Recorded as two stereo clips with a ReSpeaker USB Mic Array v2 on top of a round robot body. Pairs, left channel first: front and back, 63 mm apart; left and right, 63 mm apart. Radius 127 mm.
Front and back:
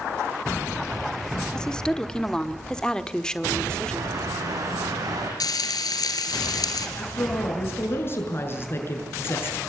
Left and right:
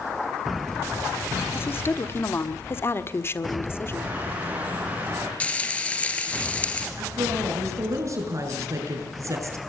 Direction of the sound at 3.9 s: 155° right.